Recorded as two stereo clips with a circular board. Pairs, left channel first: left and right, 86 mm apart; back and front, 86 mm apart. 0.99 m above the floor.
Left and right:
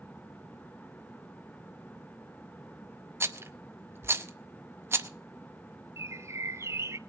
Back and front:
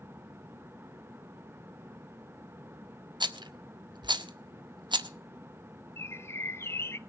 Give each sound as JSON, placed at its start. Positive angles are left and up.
{"t": 3.2, "sound": "a rattle", "azimuth_deg": -30, "distance_m": 0.8}
{"t": 6.0, "sound": "a bird", "azimuth_deg": -130, "distance_m": 0.5}